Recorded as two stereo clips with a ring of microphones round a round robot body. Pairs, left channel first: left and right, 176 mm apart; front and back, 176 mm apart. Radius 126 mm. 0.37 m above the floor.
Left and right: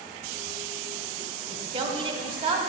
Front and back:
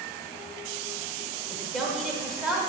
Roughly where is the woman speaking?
Right.